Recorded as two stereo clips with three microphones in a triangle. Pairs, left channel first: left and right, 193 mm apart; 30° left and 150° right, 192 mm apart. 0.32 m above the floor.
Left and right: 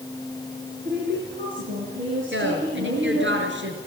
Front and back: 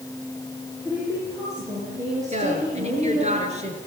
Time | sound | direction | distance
0.8 | a woman speaking | 75° right | 7 m
2.3 | a woman speaking | 95° right | 5 m